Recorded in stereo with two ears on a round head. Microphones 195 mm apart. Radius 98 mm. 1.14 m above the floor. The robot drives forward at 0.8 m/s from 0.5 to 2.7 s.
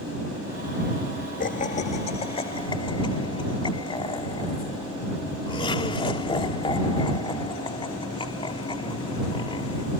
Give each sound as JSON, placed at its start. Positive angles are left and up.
{"t": 1.4, "sound": "laughter", "side_deg": 40}